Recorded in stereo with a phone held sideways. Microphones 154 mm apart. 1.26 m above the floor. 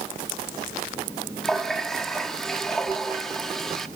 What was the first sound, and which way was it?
A running tap, 5° left (ahead or behind).